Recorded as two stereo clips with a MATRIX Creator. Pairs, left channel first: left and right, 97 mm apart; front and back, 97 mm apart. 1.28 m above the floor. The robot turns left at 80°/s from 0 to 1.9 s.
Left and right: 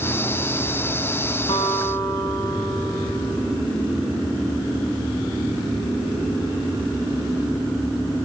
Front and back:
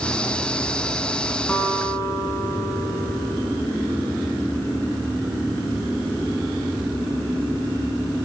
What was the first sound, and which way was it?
A guitar, 75° left.